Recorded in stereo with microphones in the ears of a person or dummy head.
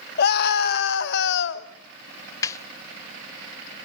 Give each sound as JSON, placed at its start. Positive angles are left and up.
{"t": 0.2, "sound": "a scream", "side_deg": 50, "distance_m": 2.5}
{"t": 2.4, "sound": "a snare drum", "side_deg": 15, "distance_m": 0.7}